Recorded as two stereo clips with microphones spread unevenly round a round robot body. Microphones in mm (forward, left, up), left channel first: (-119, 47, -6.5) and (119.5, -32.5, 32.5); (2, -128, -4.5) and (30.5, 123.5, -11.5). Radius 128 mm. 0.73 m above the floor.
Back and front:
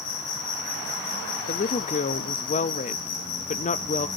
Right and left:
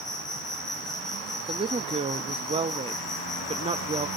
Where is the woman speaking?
140° left, 0.6 m.